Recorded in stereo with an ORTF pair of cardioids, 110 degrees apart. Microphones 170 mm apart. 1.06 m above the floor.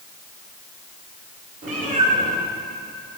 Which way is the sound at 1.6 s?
45° right.